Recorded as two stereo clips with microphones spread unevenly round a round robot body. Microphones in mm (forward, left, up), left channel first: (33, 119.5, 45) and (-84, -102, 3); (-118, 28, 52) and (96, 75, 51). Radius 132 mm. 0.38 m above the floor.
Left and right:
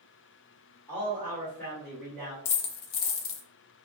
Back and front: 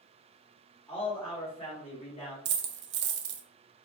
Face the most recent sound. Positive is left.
turn(degrees=50)